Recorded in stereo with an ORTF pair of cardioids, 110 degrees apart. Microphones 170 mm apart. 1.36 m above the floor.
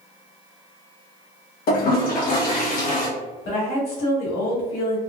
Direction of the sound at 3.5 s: 65° left.